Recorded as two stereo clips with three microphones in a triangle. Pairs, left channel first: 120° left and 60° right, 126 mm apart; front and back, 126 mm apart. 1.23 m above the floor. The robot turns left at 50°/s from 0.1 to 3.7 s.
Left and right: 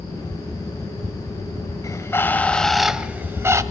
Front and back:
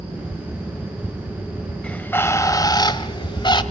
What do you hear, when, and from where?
1.8 s a bird: 75° left, 1.2 m; by 3.6 s 10° right, 1.2 m